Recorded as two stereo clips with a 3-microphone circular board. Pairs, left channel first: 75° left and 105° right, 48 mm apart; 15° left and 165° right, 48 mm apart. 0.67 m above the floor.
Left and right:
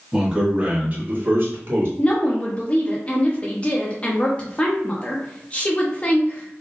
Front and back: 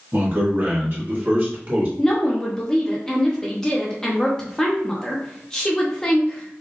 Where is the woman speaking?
65° left, 0.7 m.